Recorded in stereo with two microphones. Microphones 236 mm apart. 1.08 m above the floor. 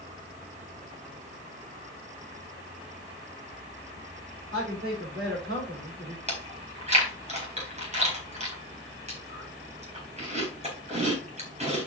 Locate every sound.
4.5 s a man speaking: 50° right (ahead or behind), 5 m
6.3 s chewing: 30° right (ahead or behind), 4 m